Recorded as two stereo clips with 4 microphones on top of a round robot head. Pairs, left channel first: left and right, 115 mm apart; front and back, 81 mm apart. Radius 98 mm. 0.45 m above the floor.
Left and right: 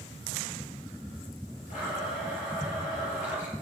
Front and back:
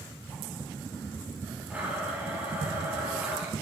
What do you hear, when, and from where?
1.7 s a blender: 115° left, 7.5 m